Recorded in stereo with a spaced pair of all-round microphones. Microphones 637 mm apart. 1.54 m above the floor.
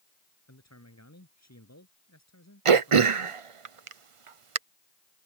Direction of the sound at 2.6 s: 50° right (ahead or behind).